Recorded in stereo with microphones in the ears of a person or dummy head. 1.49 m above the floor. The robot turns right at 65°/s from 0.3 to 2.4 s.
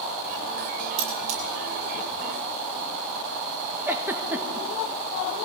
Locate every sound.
1.0 s cutlery clinking: 60° right (ahead or behind), 8.5 m; by 1.4 s 35° right (ahead or behind), 8.5 m
3.9 s a giggle: 5° right (ahead or behind), 1.3 m